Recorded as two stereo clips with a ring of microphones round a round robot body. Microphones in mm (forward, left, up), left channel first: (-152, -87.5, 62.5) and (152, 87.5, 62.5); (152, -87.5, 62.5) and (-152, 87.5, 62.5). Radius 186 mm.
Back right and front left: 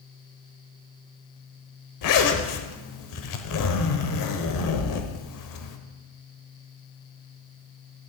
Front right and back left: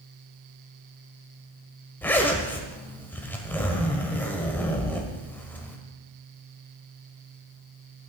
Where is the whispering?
I don't hear whispering.